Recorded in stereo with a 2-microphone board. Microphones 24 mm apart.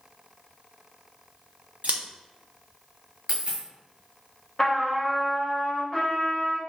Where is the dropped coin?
55° right (ahead or behind), 1.6 m.